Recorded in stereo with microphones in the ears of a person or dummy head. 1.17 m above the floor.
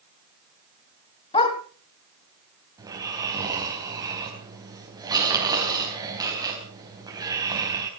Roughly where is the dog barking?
Left.